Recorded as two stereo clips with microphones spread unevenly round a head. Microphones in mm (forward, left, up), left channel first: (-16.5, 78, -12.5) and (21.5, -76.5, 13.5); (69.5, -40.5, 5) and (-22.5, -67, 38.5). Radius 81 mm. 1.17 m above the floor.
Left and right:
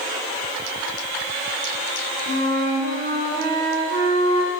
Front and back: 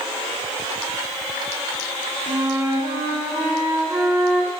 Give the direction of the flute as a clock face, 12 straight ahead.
3 o'clock.